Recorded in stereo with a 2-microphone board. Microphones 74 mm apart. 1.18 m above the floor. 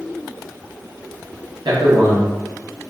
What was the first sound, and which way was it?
A man speaking, 75° right (ahead or behind).